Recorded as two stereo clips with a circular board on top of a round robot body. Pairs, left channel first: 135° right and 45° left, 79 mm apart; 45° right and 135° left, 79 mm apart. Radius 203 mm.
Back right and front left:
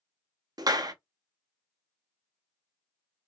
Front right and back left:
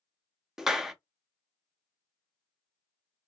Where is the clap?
55° left, 1.0 m.